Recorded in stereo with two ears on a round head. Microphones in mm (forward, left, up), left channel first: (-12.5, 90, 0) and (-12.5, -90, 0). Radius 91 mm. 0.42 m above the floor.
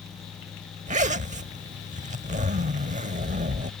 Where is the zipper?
40° right (ahead or behind).